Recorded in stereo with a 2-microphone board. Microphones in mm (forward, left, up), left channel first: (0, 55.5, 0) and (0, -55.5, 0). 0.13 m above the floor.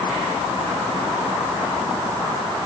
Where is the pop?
No pop in this recording.